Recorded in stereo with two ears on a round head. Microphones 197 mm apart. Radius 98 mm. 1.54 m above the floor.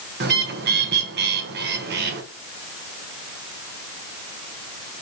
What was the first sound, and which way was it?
A bird, 50° right (ahead or behind).